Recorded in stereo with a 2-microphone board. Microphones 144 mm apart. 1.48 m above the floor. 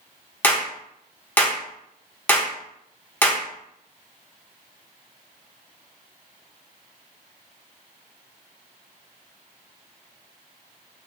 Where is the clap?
10° left (ahead or behind), 1.0 m.